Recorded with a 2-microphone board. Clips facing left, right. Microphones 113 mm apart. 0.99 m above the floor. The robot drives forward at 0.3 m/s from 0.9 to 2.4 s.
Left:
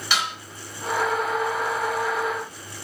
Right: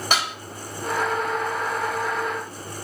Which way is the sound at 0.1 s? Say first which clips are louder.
Right 1 dB; 45° right (ahead or behind).